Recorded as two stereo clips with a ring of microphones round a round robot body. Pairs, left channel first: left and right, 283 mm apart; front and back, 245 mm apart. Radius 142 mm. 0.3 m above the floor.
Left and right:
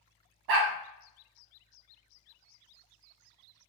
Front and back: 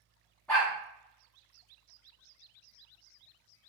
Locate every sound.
0.5 s a dog barking: 85° right, 0.9 m